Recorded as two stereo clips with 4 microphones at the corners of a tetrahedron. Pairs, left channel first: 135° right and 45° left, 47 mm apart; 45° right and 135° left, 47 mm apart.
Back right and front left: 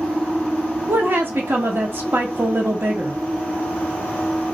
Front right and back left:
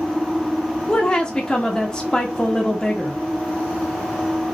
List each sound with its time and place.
0.9 s a woman speaking: 25° left, 1.0 m